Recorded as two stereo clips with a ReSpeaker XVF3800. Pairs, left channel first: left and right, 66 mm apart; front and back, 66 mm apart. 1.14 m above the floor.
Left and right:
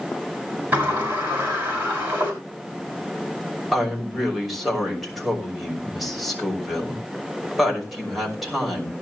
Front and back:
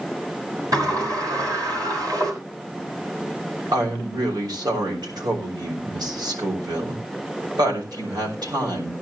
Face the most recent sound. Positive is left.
turn(degrees=-175)